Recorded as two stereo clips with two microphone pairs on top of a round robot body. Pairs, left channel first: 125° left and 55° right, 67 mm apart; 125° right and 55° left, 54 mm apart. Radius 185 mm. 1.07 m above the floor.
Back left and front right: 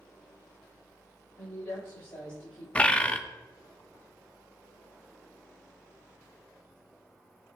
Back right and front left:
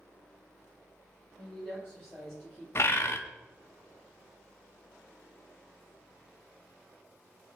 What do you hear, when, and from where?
1.4 s a woman speaking: 120° left, 2 m; by 2.6 s 135° left, 1.6 m
2.8 s a bird: 165° right, 0.5 m